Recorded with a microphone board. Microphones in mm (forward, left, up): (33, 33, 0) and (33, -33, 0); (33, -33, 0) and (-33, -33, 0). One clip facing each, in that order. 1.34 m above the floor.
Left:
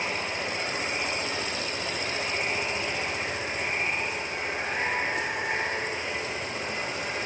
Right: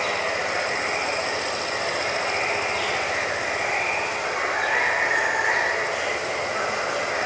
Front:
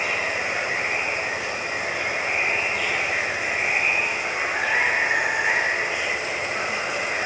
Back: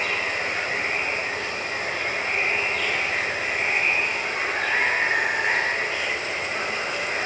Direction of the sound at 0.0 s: 80° right.